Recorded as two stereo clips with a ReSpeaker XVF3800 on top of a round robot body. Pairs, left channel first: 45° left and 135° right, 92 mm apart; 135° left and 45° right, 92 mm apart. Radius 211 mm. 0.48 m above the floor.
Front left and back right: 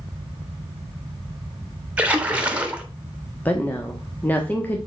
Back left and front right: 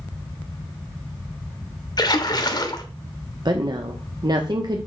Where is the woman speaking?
20° right, 1.2 m.